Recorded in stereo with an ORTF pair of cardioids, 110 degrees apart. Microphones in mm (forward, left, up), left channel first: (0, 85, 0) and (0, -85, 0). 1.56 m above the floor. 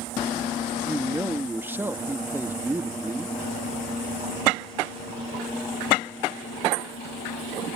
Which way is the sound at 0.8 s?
15° right.